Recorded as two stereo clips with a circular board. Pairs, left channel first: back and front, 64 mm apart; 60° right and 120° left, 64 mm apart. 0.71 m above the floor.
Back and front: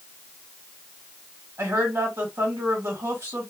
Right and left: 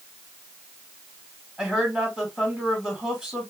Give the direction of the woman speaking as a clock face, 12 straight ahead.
11 o'clock.